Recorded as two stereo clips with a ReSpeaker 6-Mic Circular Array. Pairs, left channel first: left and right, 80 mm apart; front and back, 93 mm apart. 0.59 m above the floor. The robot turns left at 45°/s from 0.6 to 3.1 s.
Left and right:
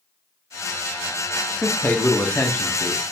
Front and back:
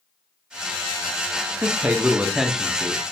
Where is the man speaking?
130° left, 0.6 m; by 3.0 s 70° left, 0.6 m.